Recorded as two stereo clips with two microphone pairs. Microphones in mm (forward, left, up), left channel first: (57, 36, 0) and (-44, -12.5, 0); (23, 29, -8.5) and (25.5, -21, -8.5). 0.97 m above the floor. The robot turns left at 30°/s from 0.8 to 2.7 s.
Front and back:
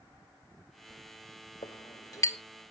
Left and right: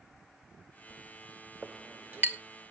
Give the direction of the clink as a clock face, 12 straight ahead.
1 o'clock.